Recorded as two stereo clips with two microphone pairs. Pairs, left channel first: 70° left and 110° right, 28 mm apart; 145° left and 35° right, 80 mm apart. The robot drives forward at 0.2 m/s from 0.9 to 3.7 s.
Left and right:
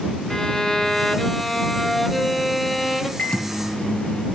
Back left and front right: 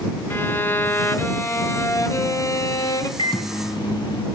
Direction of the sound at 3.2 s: 120° left.